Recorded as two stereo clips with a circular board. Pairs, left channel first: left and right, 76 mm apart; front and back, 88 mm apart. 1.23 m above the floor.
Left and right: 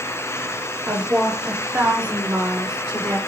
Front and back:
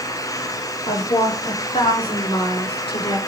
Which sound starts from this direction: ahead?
A woman speaking, at 0.9 s.